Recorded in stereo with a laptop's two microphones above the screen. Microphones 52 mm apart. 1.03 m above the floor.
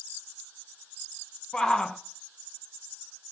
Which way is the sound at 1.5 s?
15° left (ahead or behind).